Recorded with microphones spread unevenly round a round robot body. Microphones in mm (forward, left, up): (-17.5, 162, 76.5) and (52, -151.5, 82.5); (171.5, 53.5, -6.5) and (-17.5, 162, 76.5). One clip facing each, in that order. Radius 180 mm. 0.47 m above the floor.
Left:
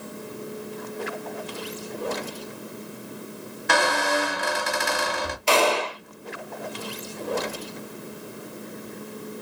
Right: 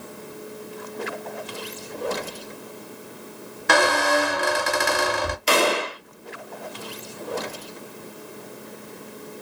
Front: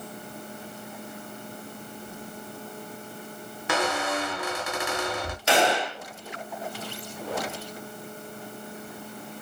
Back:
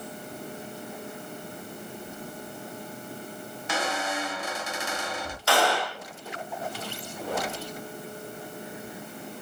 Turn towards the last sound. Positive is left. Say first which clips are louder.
# even, front 2 dB
turn(degrees=-15)